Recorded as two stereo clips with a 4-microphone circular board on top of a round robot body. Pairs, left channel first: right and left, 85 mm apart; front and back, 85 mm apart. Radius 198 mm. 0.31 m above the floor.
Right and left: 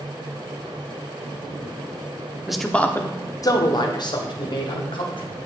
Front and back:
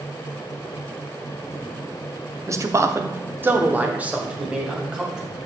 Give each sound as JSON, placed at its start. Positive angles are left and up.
{"t": 2.5, "sound": "a man speaking", "azimuth_deg": 170, "distance_m": 1.1}